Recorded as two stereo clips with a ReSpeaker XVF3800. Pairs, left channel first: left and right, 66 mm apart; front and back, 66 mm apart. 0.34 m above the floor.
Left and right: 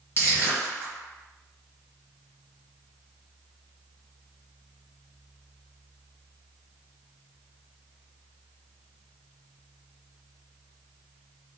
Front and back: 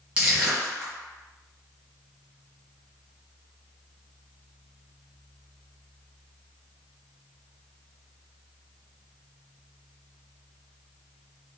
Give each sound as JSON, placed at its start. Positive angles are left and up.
{"t": 0.2, "sound": "crushing", "azimuth_deg": 125, "distance_m": 1.5}